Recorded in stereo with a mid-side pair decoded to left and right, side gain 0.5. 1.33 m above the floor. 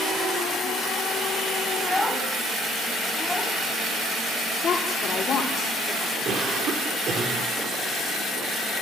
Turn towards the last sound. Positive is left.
turn(degrees=-55)